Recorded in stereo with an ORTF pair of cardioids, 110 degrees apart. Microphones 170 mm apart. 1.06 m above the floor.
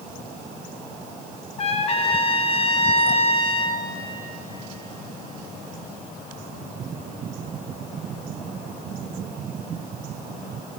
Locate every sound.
1.6 s a trumpet: 35° left, 0.9 m